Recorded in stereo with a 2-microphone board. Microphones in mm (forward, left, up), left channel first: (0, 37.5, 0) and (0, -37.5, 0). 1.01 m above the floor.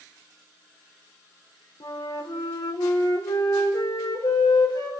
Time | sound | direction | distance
1.8 | a flute | 80° left | 3 m